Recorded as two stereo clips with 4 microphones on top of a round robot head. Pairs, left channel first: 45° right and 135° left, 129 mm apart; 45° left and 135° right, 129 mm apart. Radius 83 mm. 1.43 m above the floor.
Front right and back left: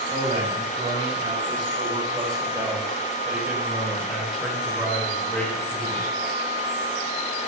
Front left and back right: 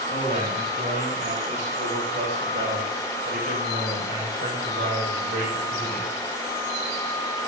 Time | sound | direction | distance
0.1 | a man speaking | 175° right | 10 m